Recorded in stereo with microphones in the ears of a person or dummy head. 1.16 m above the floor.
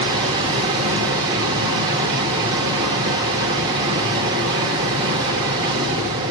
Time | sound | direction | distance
0.0 | a machine running | 25° right (ahead or behind) | 0.9 m